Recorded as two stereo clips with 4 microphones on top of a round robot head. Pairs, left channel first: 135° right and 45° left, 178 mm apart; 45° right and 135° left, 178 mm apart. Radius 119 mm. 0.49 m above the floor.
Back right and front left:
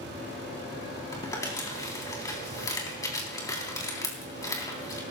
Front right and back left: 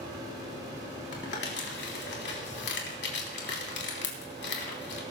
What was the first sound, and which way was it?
Crumpling, 65° right.